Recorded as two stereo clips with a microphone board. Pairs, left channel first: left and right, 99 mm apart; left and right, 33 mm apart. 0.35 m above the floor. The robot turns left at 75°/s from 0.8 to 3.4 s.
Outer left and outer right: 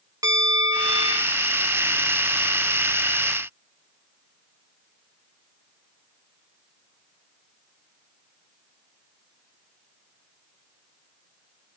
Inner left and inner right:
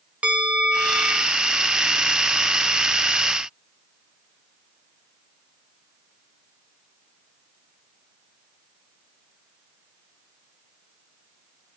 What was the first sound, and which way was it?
A bell, 60° right.